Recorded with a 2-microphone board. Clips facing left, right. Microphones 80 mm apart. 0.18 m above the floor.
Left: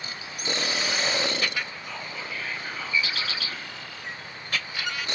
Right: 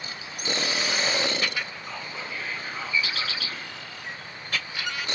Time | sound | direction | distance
1.8 | whispering | 35° right (ahead or behind) | 1.8 m